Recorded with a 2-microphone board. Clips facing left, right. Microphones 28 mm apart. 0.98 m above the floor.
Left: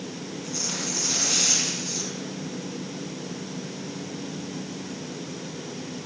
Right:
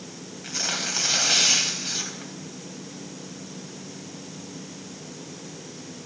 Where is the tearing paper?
70° right (ahead or behind), 3 m.